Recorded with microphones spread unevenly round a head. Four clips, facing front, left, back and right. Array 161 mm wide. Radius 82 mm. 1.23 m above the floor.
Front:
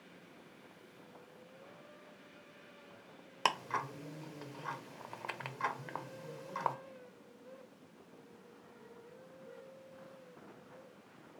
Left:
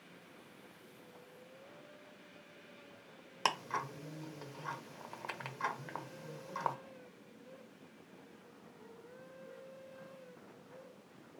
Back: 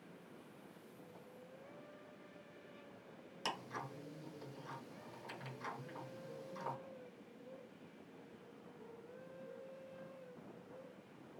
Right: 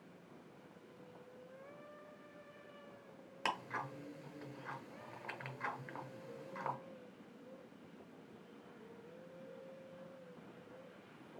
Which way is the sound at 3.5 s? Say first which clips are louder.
Left 5 dB, front 10 dB; 25° left.